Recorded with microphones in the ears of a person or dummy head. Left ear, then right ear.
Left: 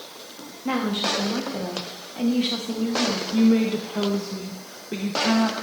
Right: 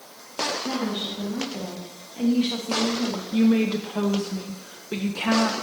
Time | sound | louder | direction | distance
0.7 | a woman speaking | left 4 dB | 55° left (ahead or behind) | 1.9 m
3.3 | a woman speaking | right 1 dB | 20° right (ahead or behind) | 0.7 m